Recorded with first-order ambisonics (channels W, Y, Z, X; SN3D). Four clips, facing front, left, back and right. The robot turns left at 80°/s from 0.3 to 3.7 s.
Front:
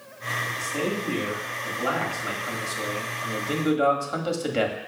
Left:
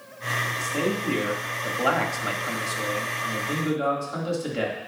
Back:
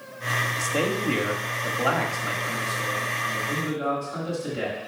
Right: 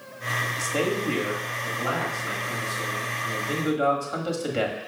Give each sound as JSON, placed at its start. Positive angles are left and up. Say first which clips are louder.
{"t": 0.4, "sound": "a man speaking", "louder": "right 1 dB, back 2 dB", "azimuth_deg": -115, "distance_m": 1.4}